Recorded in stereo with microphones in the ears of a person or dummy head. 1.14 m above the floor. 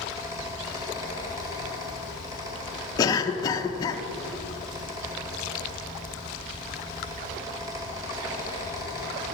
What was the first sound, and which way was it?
A fan, 15° right (ahead or behind).